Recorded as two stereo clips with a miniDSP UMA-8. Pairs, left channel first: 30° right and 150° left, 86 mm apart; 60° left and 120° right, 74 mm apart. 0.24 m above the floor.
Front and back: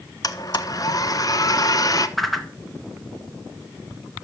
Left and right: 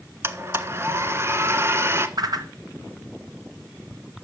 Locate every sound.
0.2 s a blender: 70° right, 1.2 m
2.2 s a whoosh: 120° right, 1.7 m